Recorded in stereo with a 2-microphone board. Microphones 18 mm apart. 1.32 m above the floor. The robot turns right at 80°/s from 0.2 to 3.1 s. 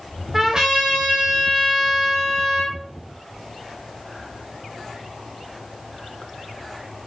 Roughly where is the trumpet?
Behind right.